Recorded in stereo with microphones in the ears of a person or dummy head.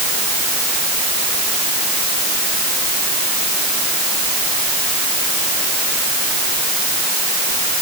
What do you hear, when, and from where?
Only background noise.